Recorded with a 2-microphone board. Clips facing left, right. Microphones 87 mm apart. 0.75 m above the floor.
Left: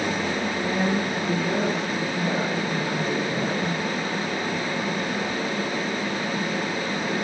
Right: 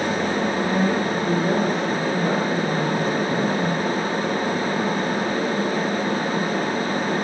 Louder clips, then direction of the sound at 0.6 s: Right 3 dB; 60° right (ahead or behind).